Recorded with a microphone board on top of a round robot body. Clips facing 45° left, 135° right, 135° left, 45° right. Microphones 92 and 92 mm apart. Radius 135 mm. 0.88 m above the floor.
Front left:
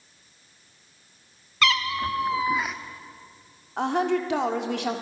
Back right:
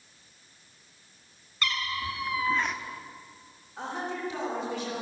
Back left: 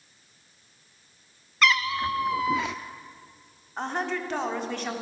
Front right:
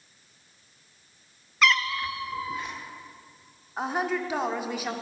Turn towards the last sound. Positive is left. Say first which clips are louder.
# front left 10 dB, front right 2 dB
turn(degrees=40)